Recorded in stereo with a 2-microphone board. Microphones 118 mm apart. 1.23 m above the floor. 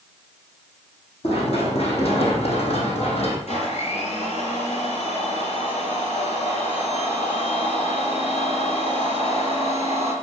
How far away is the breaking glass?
No breaking glass in this recording.